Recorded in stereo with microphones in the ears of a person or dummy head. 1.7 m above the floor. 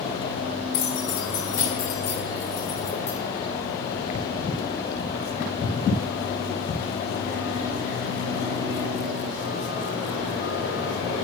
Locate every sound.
0.7 s keys jangling: 70° left (ahead or behind), 1.9 m; by 3.2 s 30° left (ahead or behind), 1.1 m